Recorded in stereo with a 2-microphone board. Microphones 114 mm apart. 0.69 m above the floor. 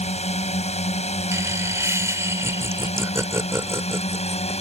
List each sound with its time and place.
0.0 s a drone: 75° left (ahead or behind); by 4.6 s 65° left (ahead or behind)
1.3 s laughter: 25° right (ahead or behind)